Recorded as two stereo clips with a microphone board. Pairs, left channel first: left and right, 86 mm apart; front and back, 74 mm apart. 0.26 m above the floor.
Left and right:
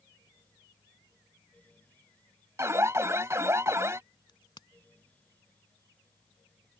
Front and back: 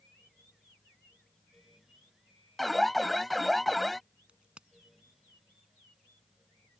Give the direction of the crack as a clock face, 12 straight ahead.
8 o'clock.